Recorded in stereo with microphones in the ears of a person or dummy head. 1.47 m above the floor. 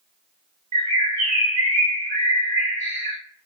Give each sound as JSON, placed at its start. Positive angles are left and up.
{"t": 0.7, "sound": "a bird", "side_deg": -35, "distance_m": 1.2}